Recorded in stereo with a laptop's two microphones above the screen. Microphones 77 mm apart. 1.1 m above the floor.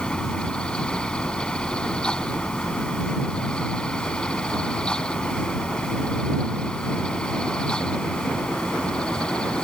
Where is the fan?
10° left (ahead or behind).